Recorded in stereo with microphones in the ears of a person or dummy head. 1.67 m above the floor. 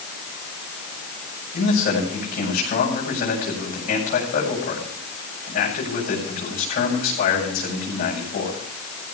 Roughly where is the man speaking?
Left.